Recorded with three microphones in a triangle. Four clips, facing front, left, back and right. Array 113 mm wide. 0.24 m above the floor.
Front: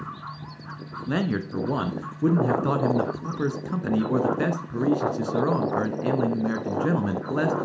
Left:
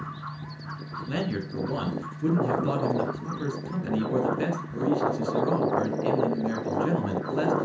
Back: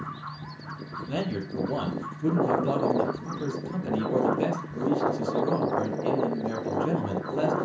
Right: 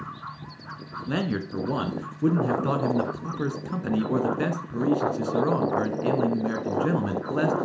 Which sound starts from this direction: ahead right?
A man speaking, at 1.1 s.